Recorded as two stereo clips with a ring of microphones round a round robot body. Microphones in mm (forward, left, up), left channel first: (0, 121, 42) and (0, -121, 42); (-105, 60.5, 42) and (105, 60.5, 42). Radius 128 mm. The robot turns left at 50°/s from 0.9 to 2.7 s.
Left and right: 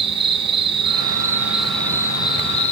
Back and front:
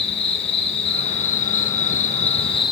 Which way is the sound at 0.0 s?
140° right.